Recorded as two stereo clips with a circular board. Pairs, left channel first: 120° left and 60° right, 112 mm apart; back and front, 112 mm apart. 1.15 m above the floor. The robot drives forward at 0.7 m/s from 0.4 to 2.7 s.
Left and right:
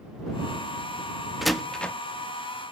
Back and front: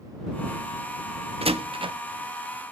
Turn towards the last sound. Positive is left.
turn(degrees=85)